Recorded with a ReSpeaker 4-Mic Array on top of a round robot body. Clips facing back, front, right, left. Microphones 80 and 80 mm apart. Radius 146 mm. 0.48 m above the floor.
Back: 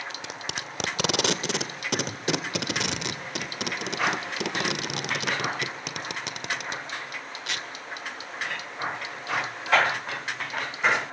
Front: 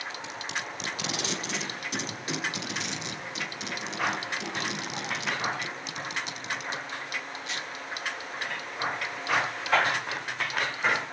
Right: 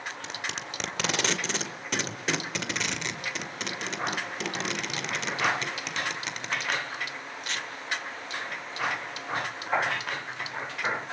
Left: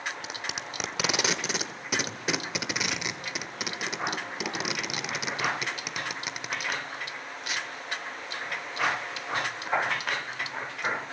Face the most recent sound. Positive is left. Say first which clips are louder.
# even, even
turn(degrees=170)